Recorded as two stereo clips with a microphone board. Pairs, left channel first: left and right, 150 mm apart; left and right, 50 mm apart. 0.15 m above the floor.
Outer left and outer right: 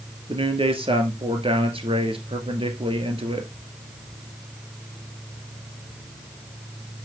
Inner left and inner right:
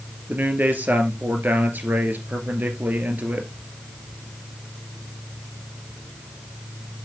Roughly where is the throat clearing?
I don't hear throat clearing.